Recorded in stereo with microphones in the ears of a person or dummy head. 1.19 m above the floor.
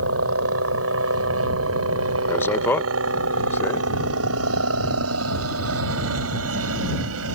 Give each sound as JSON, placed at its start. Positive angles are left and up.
{"t": 0.0, "sound": "a helicopter", "side_deg": -75}
{"t": 2.3, "sound": "a man speaking", "side_deg": 10}